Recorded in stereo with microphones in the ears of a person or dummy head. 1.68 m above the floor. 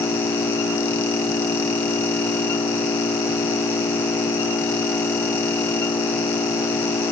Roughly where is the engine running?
Centre.